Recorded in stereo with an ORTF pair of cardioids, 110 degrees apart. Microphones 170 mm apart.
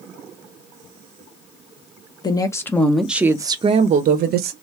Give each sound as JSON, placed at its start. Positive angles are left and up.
{"t": 2.2, "sound": "a woman speaking", "azimuth_deg": 25, "distance_m": 0.9}